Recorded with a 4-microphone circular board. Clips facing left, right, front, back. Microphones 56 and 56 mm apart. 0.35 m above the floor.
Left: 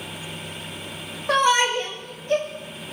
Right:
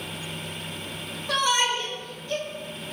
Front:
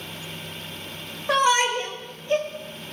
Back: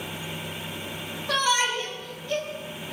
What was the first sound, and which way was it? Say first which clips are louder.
A shout: left 5 dB, front 4 dB; 55° left.